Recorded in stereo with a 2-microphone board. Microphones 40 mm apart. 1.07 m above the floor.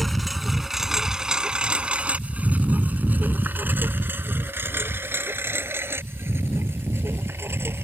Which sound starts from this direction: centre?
A lawn mower, at 0.0 s.